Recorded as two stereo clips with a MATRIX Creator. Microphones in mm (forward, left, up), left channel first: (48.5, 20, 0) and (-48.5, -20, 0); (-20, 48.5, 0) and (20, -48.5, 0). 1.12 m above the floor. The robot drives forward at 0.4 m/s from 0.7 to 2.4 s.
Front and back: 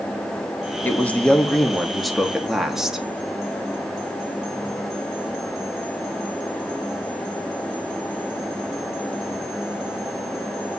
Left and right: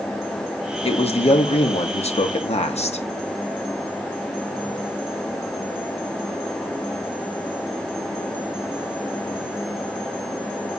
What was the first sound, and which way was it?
A man speaking, 95° left.